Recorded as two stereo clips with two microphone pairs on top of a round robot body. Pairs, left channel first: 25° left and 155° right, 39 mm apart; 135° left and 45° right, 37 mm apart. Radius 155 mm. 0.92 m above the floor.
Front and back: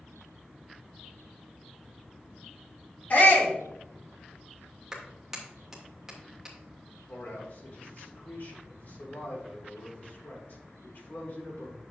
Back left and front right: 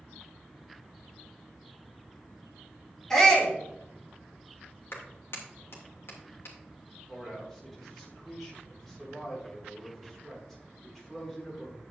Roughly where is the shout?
Ahead left.